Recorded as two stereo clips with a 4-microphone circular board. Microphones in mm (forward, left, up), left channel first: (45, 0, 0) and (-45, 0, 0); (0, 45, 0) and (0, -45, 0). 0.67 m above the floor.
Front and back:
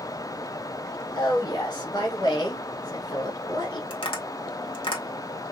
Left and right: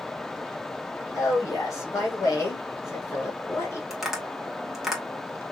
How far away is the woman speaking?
About 3 m.